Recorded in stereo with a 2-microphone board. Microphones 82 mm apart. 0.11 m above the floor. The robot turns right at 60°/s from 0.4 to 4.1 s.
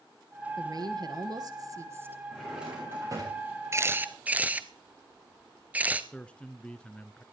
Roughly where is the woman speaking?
Behind right.